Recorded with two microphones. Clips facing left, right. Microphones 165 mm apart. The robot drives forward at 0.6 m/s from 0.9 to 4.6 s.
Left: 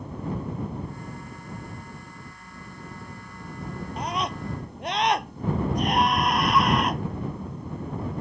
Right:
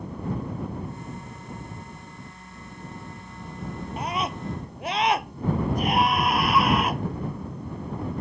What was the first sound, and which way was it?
A scream, centre (ahead or behind).